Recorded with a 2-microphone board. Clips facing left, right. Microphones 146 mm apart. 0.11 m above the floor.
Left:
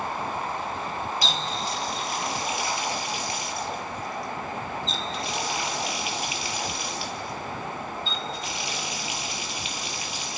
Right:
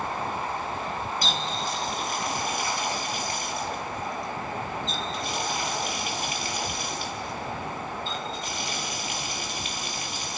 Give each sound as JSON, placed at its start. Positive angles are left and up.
{"t": 1.2, "sound": "a running tap", "side_deg": -50, "distance_m": 1.9}